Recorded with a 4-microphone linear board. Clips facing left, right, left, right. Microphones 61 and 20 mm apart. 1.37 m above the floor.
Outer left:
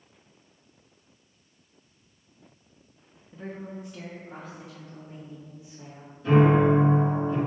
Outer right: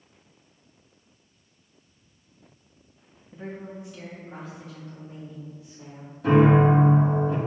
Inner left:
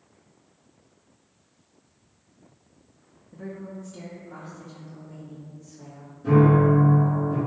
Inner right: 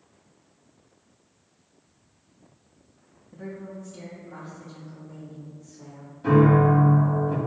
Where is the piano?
75° right (ahead or behind), 1.4 m.